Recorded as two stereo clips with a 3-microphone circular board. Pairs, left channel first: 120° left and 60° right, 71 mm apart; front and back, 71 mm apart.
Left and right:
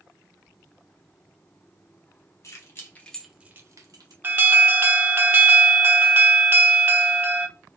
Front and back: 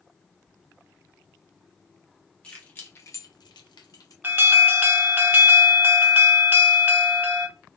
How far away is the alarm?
About 0.5 m.